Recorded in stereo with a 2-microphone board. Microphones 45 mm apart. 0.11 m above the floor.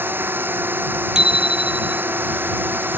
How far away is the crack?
I don't hear a crack.